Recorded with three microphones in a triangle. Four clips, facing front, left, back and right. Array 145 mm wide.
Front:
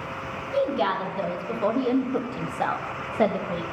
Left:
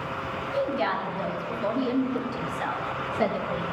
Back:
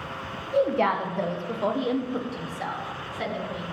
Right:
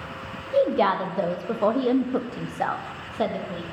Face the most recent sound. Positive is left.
turn(degrees=0)